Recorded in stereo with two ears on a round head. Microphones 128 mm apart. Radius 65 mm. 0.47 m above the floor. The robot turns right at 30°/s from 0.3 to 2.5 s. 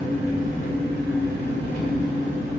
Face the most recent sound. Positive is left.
turn(degrees=-55)